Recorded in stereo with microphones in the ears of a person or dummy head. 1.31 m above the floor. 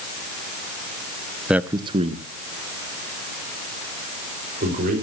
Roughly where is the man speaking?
Centre.